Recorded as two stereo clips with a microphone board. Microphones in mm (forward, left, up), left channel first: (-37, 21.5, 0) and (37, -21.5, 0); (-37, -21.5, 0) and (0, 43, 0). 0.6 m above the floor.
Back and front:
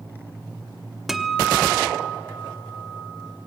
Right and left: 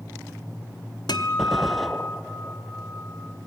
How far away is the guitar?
About 1.1 m.